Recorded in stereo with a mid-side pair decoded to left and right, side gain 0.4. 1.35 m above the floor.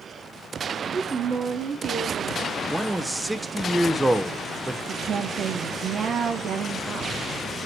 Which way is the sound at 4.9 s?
60° right.